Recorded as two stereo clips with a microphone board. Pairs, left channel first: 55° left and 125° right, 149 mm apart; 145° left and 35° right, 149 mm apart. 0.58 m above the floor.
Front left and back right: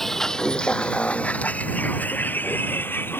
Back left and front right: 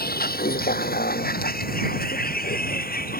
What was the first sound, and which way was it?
A vehicle, 145° left.